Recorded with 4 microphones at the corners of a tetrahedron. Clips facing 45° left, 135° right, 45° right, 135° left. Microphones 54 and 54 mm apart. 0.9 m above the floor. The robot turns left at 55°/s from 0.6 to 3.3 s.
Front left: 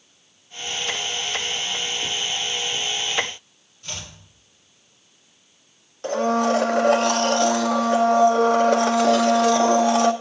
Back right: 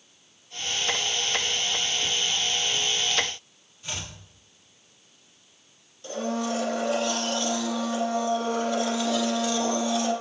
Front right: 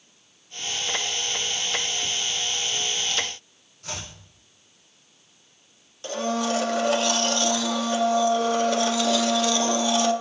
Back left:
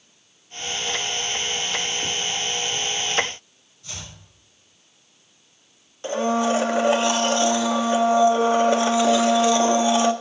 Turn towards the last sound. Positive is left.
turn(degrees=70)